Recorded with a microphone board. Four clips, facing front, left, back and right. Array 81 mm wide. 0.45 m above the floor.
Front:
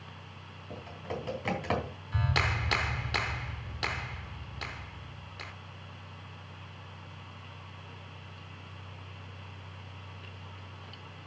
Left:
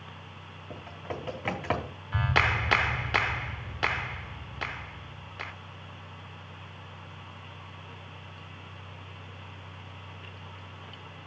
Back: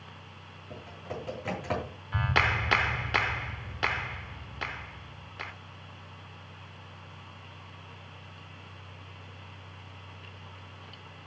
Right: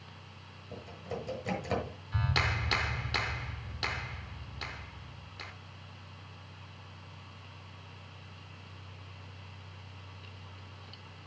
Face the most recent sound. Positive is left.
turn(degrees=120)